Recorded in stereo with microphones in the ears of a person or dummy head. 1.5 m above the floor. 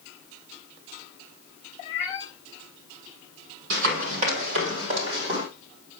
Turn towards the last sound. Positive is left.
turn(degrees=-30)  # may be behind; listen again after turning